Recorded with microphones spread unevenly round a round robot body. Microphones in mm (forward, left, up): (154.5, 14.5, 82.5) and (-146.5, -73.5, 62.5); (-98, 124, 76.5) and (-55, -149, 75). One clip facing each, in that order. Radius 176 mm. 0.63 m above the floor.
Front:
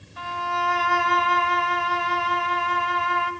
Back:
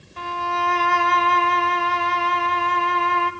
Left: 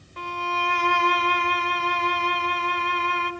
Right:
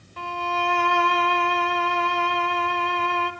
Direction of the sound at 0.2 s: 130° left.